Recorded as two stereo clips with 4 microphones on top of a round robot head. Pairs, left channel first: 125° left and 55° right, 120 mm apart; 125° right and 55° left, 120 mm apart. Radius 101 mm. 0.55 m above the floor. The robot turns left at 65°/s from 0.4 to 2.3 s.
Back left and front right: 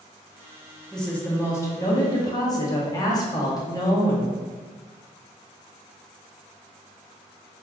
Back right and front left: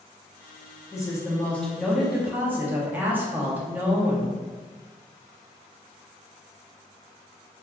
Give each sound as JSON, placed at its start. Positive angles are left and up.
{"t": 0.9, "sound": "a woman speaking", "azimuth_deg": -155, "distance_m": 1.0}